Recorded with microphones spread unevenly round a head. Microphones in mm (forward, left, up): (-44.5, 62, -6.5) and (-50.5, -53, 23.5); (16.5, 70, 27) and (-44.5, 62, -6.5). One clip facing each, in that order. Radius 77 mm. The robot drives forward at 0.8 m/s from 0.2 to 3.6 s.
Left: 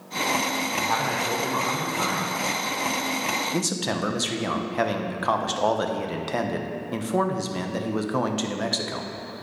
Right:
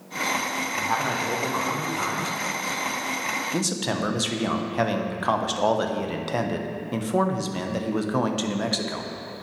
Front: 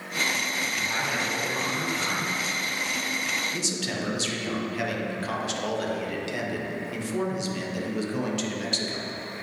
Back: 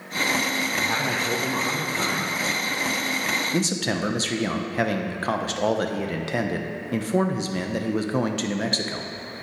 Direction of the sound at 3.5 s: 175° left.